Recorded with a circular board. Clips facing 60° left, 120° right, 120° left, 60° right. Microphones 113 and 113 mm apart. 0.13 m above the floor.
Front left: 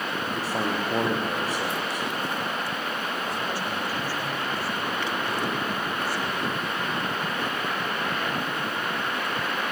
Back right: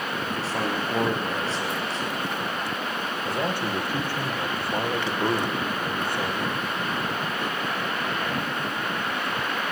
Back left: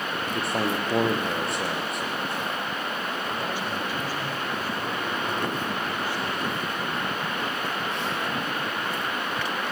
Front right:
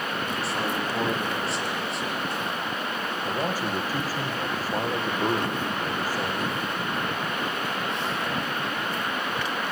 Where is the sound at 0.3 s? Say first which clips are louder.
Even, back left 4 dB; 135° left, 3 m.